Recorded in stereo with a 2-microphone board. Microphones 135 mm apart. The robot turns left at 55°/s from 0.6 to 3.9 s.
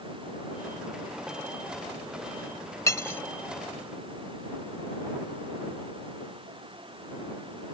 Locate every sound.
2.9 s cutlery clinking: 20° left (ahead or behind); by 3.2 s 15° left (ahead or behind)